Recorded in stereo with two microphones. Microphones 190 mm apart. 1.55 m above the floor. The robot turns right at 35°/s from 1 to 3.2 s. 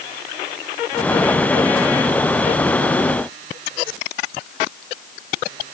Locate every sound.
Only background noise.